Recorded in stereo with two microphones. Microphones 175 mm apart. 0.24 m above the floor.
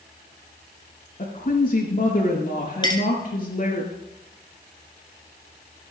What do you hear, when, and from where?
1.2 s a woman speaking: 55° left (ahead or behind), 5 m
2.8 s a clink: 25° left (ahead or behind), 1.7 m